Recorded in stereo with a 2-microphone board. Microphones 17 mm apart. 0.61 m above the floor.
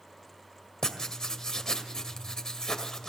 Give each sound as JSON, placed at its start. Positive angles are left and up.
{"t": 0.8, "sound": "writing", "side_deg": 35, "distance_m": 2.0}